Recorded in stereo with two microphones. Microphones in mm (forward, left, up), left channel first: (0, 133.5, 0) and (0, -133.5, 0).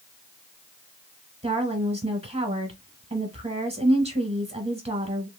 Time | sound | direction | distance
1.4 | a woman speaking | 25° right (ahead or behind) | 1.1 m